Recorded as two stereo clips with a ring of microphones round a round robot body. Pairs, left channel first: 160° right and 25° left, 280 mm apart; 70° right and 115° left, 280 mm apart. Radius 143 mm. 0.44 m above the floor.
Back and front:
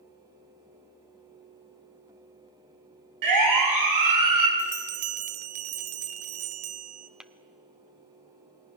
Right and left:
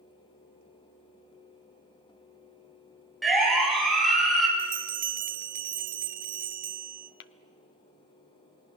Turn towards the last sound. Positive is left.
turn(degrees=-65)